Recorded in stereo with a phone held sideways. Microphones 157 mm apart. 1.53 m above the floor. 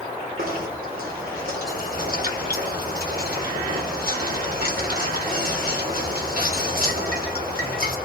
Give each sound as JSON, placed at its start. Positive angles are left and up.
{"t": 0.4, "sound": "knocking", "side_deg": -75, "distance_m": 3.5}